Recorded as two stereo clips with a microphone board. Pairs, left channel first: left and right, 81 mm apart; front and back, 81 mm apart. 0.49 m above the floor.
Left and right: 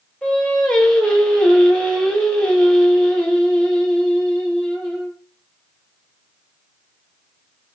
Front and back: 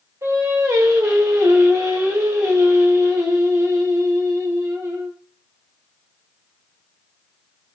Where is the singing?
160° left, 0.8 m.